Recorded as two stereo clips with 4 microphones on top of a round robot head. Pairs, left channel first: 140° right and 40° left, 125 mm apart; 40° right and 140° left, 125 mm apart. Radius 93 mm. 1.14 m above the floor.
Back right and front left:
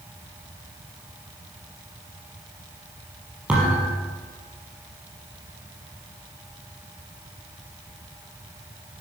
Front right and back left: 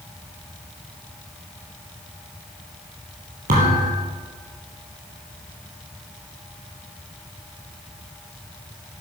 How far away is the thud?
About 4 m.